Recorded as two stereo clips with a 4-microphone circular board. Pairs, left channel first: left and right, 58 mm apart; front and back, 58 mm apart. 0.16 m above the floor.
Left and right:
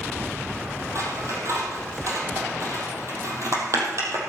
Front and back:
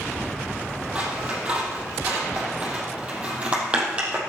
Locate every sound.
0.9 s scissors: 110° right, 3.5 m